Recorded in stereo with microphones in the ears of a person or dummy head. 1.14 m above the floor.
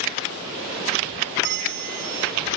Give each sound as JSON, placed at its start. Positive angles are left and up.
{"t": 1.4, "sound": "a bell", "side_deg": -50, "distance_m": 0.5}